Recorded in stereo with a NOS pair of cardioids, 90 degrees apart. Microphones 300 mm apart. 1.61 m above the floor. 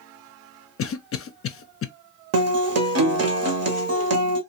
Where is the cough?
50° left, 0.5 m.